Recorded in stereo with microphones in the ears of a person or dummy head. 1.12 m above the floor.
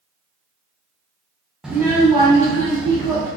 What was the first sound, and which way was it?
A child speaking, centre (ahead or behind).